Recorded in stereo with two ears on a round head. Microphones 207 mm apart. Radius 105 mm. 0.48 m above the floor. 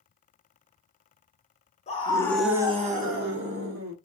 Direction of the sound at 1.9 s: 30° left (ahead or behind).